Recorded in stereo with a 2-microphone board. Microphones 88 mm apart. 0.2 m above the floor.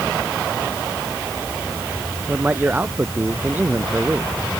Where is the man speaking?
20° right (ahead or behind).